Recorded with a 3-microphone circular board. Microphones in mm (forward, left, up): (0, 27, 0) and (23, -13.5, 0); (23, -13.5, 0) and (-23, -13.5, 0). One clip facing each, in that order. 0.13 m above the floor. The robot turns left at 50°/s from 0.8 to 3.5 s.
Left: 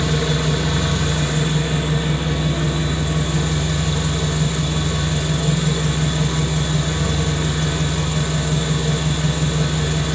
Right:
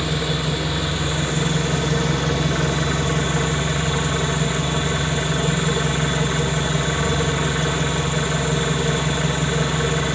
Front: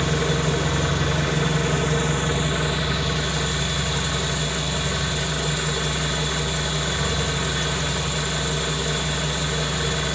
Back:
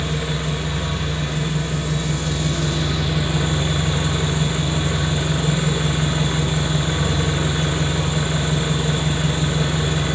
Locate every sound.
0.0 s an engine running: 20° left, 2.5 m; by 10.2 s 115° right, 2.5 m